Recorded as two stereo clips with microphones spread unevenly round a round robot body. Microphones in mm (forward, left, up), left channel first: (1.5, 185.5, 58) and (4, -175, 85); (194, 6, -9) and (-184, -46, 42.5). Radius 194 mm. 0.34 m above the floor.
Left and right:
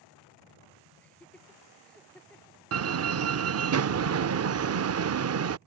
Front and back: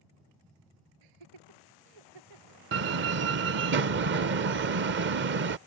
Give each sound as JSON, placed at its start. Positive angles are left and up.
{"t": 1.0, "sound": "laughter", "azimuth_deg": 175}
{"t": 2.7, "sound": "a door slam", "azimuth_deg": -115}